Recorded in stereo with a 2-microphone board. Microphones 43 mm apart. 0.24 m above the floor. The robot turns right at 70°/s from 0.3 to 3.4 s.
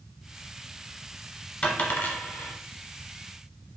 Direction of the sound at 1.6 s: 30° left (ahead or behind).